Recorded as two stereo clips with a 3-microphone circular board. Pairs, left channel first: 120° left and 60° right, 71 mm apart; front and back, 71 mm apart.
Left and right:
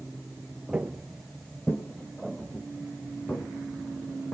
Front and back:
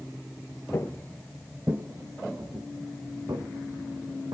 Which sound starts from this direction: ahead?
Footsteps, at 0.7 s.